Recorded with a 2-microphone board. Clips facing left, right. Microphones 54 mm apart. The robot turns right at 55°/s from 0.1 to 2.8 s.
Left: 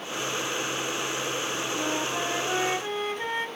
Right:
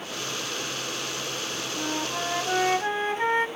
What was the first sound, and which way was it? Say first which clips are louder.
A flute: even; 170° left.